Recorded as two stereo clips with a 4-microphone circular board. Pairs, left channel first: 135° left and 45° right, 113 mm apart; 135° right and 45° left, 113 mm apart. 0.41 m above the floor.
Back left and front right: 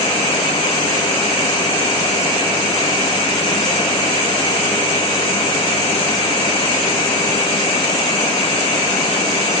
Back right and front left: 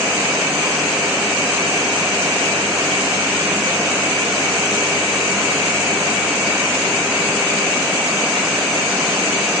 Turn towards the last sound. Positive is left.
No sound to turn to.